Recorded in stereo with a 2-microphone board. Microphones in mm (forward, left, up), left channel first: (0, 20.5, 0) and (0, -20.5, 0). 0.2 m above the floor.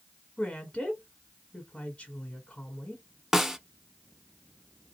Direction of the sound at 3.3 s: 5° right (ahead or behind).